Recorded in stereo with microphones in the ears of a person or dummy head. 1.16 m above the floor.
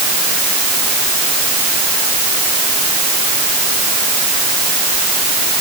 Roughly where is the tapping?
No tapping in this recording.